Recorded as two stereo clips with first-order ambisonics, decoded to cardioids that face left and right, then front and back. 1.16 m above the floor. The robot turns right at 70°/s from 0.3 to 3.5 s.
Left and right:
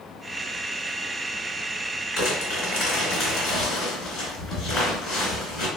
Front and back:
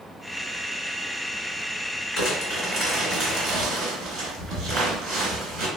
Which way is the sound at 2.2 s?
50° left.